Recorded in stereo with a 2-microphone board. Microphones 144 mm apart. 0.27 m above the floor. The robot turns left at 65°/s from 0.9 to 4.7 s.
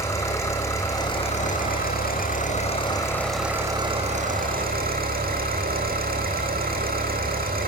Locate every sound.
0.0 s an engine running: 160° left, 6.5 m; by 7.7 s 85° right, 6.5 m